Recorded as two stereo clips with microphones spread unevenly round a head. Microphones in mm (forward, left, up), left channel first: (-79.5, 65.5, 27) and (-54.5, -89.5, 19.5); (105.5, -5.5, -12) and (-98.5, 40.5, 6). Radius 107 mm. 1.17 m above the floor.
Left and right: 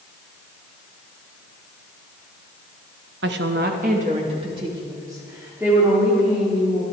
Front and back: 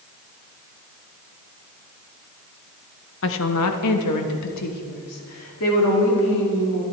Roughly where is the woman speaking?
Ahead right.